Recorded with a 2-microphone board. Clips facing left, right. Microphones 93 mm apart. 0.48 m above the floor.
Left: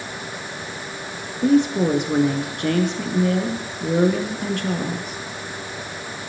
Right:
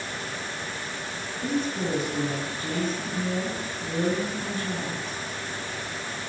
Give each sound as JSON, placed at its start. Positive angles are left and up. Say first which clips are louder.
{"t": 1.4, "sound": "a woman speaking", "louder": "left 11 dB", "side_deg": 75, "distance_m": 6.0}